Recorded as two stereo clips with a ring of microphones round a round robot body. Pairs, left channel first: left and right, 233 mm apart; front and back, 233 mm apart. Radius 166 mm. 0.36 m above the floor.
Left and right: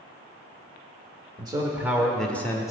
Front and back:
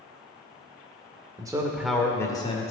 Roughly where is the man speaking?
Behind right.